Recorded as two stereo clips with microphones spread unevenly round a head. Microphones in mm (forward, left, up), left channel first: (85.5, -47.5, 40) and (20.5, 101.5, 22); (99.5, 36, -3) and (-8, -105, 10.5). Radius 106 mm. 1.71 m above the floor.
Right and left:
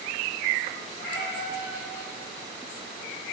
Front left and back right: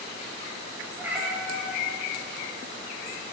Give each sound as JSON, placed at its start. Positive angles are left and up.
{"t": 1.0, "sound": "a cat meowing", "azimuth_deg": -50, "distance_m": 1.5}